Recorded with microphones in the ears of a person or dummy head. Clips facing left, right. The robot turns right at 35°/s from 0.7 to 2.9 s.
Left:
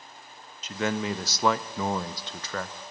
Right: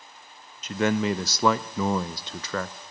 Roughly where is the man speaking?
Behind right.